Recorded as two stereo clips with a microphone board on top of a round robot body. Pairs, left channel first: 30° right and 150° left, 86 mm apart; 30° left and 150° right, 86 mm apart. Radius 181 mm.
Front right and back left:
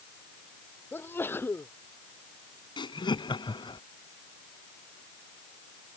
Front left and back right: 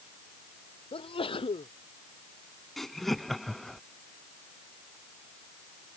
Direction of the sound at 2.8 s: 55° right.